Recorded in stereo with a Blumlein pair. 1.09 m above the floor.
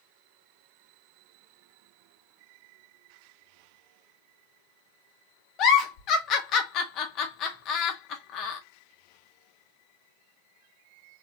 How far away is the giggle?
About 0.6 m.